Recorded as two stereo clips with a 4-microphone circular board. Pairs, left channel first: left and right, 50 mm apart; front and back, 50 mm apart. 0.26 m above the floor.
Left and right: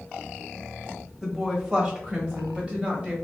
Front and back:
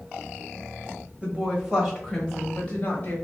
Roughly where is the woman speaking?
Behind.